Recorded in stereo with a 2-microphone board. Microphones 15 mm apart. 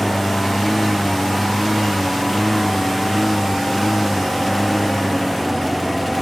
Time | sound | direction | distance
0.0 | a lawn mower | 10° left (ahead or behind) | ?